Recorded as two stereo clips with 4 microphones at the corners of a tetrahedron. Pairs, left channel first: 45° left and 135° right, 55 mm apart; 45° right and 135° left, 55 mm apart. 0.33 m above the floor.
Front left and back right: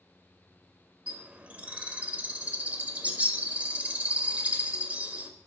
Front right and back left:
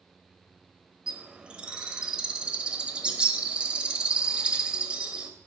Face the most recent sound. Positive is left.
turn(degrees=-175)